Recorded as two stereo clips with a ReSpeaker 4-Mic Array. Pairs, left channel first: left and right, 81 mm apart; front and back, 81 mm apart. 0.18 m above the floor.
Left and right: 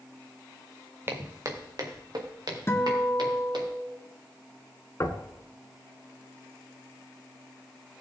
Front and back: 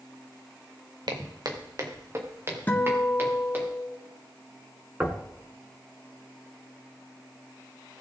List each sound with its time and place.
1.1 s footsteps: 150° right, 1.7 m; by 3.7 s 115° right, 5 m
2.7 s a guitar: 55° left, 1.8 m
5.0 s knocking: 120° left, 1.3 m